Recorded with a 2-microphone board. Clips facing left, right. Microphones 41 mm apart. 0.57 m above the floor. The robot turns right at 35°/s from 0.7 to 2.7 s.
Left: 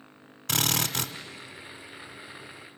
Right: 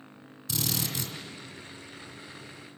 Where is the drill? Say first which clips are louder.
Left 5 dB; 65° left (ahead or behind), 1.3 m; by 1.1 s 70° left (ahead or behind), 1.3 m.